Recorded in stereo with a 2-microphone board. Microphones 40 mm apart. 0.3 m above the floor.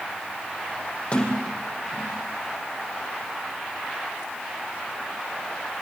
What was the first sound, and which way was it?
A sliding door, 30° left (ahead or behind).